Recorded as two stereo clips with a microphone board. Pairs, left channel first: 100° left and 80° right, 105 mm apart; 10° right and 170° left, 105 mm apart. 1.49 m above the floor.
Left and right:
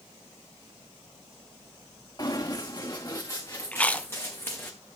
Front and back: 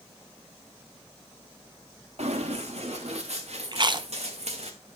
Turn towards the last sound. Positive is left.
turn(degrees=170)